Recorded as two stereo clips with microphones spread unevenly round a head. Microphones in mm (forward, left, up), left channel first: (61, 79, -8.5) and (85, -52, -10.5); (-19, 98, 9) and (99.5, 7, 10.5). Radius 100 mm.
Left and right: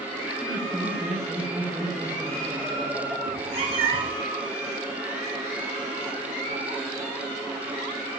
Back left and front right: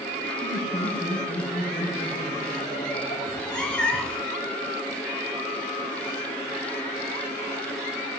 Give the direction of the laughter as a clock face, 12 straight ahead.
5 o'clock.